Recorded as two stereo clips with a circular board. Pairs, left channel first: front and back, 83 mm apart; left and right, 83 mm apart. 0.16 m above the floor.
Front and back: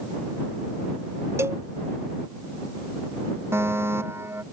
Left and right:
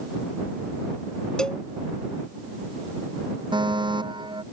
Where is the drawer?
No drawer in this recording.